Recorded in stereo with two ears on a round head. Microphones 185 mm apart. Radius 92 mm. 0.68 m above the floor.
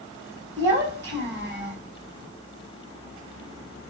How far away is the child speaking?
About 1.5 m.